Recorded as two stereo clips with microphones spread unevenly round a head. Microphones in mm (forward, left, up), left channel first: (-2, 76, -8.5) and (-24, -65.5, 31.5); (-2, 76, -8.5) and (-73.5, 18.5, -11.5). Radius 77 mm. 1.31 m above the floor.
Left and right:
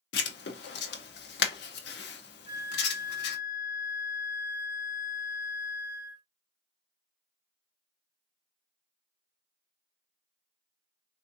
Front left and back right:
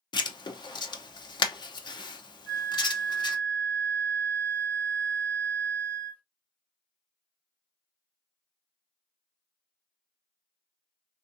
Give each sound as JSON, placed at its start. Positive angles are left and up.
{"t": 0.1, "sound": "writing", "azimuth_deg": 80, "distance_m": 0.7}
{"t": 2.5, "sound": "a flute", "azimuth_deg": 100, "distance_m": 1.0}